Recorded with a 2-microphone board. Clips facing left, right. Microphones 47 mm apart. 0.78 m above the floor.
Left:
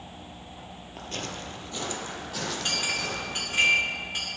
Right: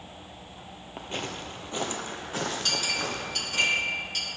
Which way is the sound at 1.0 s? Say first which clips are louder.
Right 1 dB; 20° right (ahead or behind).